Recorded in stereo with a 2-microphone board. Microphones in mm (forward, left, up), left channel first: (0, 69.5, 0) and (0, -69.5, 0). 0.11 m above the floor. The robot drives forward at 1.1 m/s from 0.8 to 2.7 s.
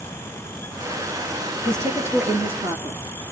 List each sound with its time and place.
1.6 s a woman speaking: 20° right (ahead or behind), 1.8 m; by 3.0 s 15° right (ahead or behind), 2.5 m